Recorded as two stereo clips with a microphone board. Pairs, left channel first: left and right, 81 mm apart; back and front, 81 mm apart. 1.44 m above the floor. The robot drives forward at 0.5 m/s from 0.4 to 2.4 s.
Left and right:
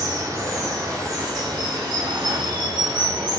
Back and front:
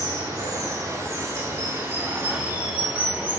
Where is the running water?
45° right, 2 m; by 3.4 s 70° right, 1.5 m.